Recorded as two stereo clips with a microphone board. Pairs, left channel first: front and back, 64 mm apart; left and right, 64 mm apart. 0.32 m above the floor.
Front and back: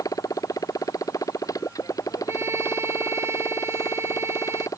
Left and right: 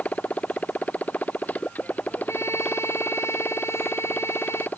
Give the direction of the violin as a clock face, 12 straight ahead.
7 o'clock.